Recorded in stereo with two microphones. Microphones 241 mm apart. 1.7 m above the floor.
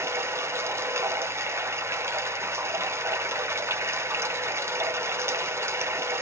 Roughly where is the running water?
Centre.